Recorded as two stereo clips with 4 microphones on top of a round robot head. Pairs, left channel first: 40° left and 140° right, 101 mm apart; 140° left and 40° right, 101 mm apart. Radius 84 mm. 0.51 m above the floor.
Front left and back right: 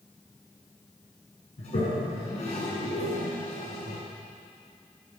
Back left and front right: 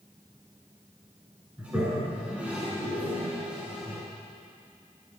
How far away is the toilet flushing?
About 8 m.